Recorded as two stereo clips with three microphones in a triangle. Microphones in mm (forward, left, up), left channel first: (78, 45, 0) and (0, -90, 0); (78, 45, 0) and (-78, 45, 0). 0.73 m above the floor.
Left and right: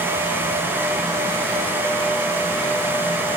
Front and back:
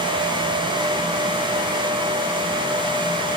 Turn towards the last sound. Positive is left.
No sound to turn to.